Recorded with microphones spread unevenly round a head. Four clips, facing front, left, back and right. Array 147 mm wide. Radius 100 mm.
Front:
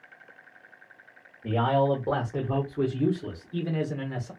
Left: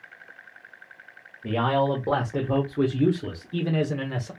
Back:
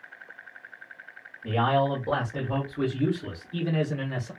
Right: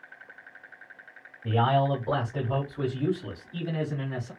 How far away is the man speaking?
About 1.3 m.